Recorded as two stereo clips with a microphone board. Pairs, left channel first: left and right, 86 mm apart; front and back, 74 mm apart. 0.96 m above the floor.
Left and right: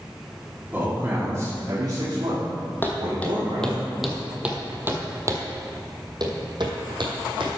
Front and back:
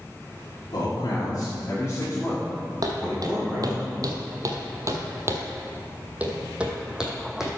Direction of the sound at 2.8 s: 155° left.